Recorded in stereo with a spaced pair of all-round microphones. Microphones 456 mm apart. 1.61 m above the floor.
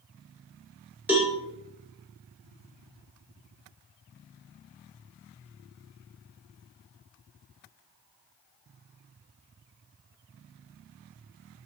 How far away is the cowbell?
About 1.6 m.